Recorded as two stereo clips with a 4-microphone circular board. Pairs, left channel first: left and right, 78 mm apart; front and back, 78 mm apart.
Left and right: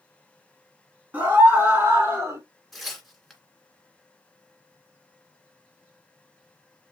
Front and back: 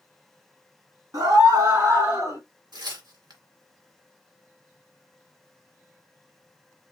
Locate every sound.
1.1 s a scream: 155° right, 2.5 m; by 2.4 s 140° right, 3.5 m
2.7 s tearing paper: 175° left, 2 m